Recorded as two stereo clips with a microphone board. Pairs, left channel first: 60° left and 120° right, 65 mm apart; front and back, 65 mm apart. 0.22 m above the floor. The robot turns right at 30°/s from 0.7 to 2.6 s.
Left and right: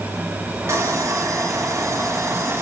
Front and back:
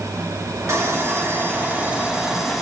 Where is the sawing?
145° right, 2 m; by 2.6 s 90° right, 2 m.